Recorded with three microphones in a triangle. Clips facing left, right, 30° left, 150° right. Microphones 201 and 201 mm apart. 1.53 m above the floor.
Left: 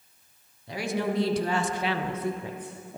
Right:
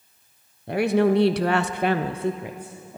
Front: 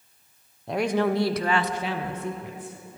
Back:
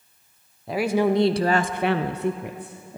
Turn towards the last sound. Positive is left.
turn(degrees=180)